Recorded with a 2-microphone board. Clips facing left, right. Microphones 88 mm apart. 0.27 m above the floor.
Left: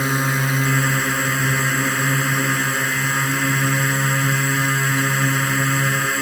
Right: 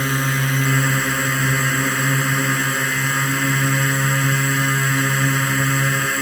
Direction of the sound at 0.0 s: 10° left (ahead or behind).